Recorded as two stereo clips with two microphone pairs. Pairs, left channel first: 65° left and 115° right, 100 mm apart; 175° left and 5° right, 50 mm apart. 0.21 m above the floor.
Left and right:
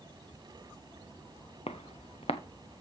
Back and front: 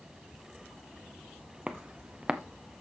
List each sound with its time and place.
1.7 s footsteps: 70° left, 1.3 m